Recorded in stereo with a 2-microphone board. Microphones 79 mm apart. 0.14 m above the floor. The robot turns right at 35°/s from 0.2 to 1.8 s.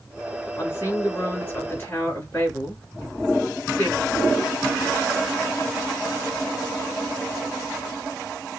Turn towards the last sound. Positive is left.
turn(degrees=25)  # may be behind; listen again after turning